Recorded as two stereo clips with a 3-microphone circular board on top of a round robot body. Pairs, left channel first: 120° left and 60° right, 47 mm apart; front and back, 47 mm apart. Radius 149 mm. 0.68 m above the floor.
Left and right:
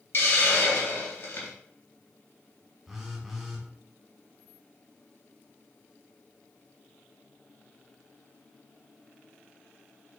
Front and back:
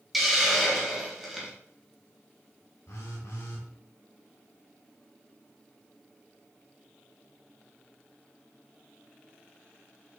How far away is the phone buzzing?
About 1.4 m.